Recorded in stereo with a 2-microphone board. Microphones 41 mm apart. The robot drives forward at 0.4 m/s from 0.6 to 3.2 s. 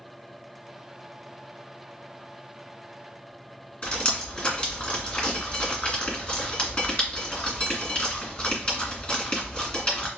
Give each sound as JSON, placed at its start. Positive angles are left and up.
{"t": 3.8, "sound": "dripping", "side_deg": 25, "distance_m": 1.9}